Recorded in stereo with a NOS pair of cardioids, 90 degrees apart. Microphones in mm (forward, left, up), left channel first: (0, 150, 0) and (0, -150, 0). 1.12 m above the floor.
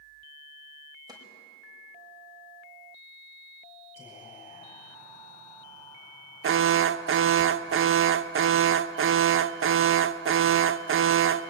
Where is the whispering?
20° left, 8.5 m.